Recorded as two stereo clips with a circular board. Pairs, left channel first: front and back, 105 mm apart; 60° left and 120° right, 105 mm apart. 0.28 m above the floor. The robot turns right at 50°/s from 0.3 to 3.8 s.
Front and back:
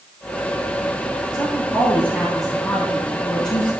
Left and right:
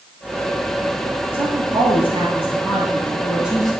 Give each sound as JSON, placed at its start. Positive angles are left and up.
{"t": 1.3, "sound": "a woman speaking", "azimuth_deg": -145, "distance_m": 6.5}